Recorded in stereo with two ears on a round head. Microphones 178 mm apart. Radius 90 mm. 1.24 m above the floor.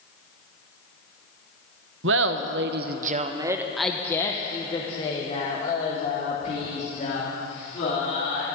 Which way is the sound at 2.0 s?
65° right (ahead or behind).